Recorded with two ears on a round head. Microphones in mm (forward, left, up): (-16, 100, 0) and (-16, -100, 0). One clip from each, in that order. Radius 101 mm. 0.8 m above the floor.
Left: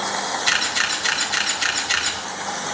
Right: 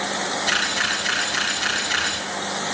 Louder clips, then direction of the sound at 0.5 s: Left 1 dB; 75° left (ahead or behind).